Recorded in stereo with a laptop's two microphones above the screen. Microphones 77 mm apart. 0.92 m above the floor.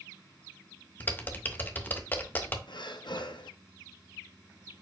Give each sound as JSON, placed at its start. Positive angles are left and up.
{"t": 1.0, "sound": "typing on a keyboard", "side_deg": 25, "distance_m": 0.6}
{"t": 2.7, "sound": "breathing", "side_deg": 75, "distance_m": 0.5}